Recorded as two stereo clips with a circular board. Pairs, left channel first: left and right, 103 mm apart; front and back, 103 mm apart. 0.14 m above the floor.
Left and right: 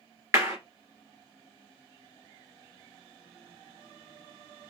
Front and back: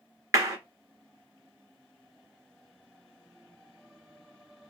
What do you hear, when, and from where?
0.3 s a clap: 145° right, 1.6 m